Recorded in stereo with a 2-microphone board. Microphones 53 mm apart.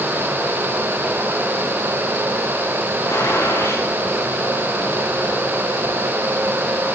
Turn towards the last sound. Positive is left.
turn(degrees=75)  # may be behind; listen again after turning